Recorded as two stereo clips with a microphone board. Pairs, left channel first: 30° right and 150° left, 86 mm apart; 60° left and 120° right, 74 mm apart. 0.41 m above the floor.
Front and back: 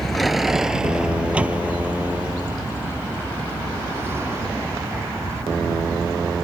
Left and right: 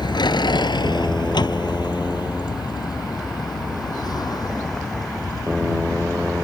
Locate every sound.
0.0 s a vehicle: 55° left; by 6.4 s 90° left